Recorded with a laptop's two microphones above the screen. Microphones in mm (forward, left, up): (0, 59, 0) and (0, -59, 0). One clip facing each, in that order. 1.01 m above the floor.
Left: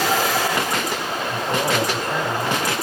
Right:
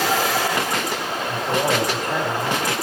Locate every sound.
1.3 s a man speaking: 5° right (ahead or behind), 5 m